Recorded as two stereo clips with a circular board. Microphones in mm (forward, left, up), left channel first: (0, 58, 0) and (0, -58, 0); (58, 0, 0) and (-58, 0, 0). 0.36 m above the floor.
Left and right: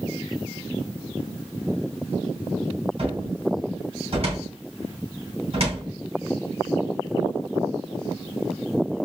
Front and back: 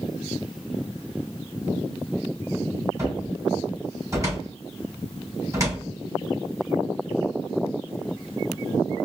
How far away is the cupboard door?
About 3 m.